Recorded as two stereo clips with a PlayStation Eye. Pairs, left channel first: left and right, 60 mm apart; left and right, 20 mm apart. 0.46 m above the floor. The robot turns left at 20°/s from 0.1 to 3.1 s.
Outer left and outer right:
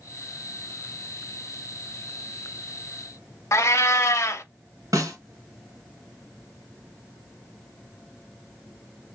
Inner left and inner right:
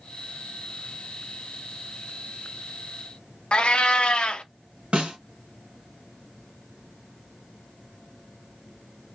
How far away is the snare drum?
About 1.9 m.